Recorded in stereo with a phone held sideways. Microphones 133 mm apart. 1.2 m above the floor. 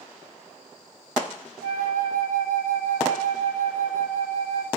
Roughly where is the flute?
Right.